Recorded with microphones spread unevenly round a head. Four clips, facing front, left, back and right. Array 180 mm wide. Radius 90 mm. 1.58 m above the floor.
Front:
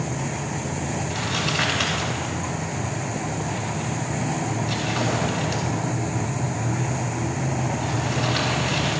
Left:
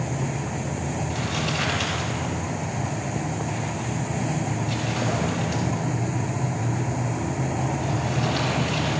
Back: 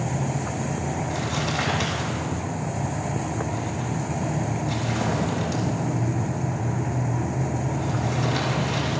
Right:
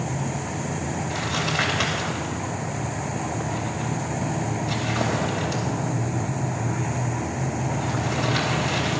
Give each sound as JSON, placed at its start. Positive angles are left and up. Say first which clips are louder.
{"t": 1.1, "sound": "crumpling", "louder": "right 1 dB, even", "azimuth_deg": -90, "distance_m": 3.0}